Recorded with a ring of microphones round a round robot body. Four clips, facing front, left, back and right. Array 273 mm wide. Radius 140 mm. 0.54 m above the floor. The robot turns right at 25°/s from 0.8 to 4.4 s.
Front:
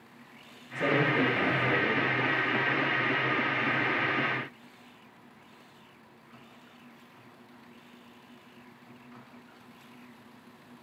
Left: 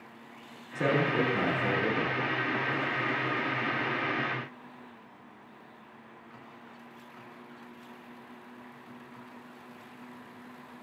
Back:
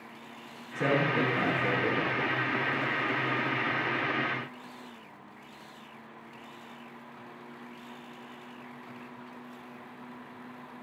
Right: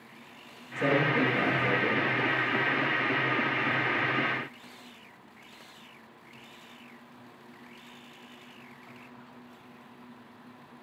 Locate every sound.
0.8 s a man speaking: 90° left, 5.5 m; by 2.2 s 125° left, 5.5 m